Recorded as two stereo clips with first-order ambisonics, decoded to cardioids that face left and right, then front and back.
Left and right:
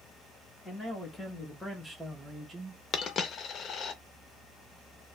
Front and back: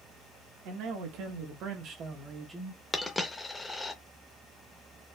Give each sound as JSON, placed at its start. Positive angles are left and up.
{"t": 0.7, "sound": "a man speaking", "azimuth_deg": 170, "distance_m": 1.4}
{"t": 2.9, "sound": "a dropped coin", "azimuth_deg": 75, "distance_m": 0.6}